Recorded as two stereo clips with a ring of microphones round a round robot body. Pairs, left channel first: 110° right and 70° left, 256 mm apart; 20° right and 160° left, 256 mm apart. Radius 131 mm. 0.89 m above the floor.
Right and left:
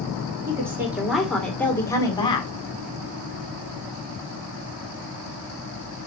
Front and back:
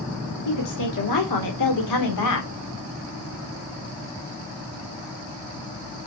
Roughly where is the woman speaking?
Ahead.